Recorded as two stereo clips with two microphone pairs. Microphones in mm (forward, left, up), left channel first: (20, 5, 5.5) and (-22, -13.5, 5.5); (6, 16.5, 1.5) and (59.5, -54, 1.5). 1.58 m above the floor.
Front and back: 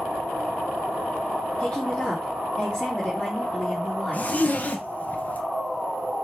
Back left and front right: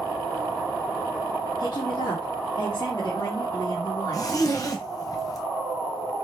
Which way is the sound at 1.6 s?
95° left.